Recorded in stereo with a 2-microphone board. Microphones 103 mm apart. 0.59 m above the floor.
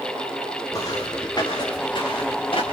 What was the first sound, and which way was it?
Footsteps, 35° left (ahead or behind).